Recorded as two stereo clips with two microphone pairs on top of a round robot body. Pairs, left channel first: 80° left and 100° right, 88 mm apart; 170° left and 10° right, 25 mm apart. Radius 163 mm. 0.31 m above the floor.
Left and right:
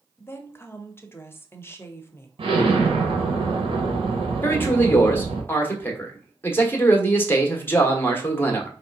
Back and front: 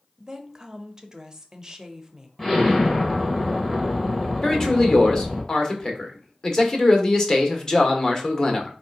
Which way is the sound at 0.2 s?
45° left.